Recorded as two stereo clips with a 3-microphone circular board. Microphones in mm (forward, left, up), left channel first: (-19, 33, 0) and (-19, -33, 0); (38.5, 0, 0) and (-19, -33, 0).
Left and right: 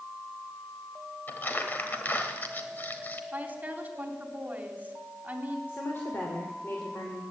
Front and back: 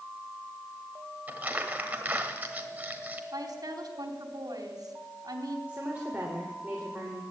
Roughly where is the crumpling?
Behind left.